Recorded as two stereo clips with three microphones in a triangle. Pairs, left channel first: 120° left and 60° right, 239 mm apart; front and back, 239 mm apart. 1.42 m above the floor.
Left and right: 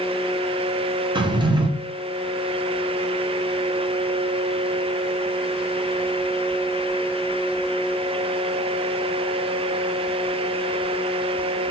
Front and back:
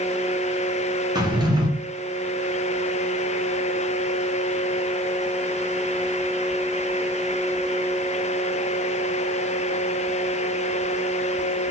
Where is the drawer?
120° right, 0.6 m.